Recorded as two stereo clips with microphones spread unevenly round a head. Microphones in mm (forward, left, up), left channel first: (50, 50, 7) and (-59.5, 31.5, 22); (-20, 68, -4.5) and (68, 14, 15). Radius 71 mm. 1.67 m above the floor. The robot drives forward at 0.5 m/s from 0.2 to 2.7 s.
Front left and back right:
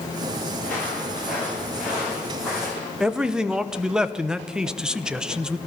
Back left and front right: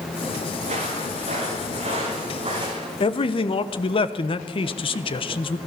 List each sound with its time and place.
0.6 s footsteps: 70° right, 8.5 m; by 2.9 s 85° right, 5 m
3.0 s a man speaking: 110° left, 1.0 m